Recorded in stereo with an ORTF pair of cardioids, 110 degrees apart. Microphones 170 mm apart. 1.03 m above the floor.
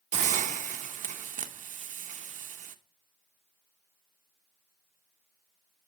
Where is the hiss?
45° right, 0.8 m.